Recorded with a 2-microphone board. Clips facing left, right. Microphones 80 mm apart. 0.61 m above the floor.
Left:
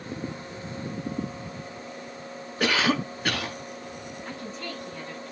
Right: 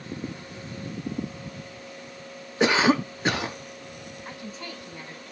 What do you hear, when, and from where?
2.6 s a cough: 20° right (ahead or behind), 1.0 m
4.2 s a woman speaking: 10° right (ahead or behind), 6 m